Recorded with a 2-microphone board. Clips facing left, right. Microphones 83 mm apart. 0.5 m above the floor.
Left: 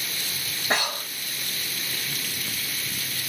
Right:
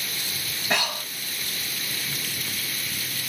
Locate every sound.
0.7 s breathing: 30° left (ahead or behind), 3 m